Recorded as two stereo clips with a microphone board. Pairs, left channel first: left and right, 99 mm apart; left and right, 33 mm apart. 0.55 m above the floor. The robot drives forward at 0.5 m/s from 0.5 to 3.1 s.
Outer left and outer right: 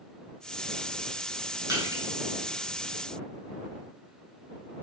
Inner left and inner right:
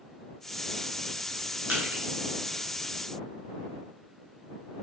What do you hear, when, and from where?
1.7 s crushing: 40° right (ahead or behind), 1.6 m; by 2.0 s 35° right (ahead or behind), 1.7 m